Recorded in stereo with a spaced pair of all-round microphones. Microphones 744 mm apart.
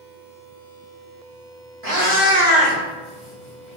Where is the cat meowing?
30° right (ahead or behind), 1.2 m; by 3.8 s 25° left (ahead or behind), 2 m.